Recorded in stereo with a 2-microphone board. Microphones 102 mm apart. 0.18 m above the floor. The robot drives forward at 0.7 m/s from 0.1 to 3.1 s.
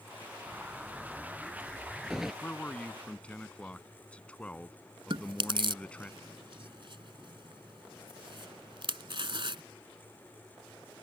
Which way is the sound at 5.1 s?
55° right (ahead or behind).